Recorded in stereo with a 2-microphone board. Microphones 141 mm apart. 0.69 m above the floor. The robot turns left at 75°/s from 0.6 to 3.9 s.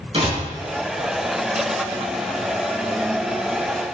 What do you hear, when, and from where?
0.1 s a door slam: 40° right (ahead or behind), 3.5 m